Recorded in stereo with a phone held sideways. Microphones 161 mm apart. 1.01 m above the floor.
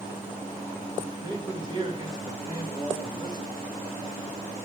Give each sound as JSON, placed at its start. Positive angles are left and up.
{"t": 1.2, "sound": "a man speaking", "side_deg": -30, "distance_m": 1.6}